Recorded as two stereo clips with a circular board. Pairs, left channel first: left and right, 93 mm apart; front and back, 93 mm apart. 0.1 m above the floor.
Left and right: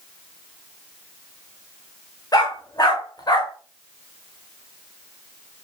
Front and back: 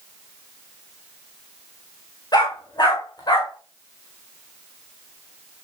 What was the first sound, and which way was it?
A dog barking, 40° left.